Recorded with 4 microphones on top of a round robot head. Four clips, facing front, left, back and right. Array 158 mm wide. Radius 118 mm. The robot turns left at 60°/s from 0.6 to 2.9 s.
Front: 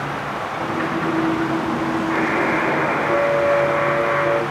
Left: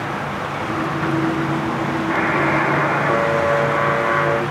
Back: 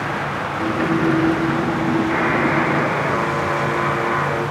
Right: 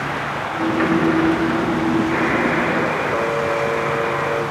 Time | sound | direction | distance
2.1 | a buzzer | 105° left | 5 m